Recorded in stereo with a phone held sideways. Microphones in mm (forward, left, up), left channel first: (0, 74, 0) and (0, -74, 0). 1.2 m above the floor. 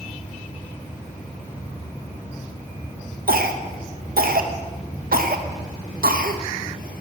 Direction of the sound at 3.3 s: 80° right.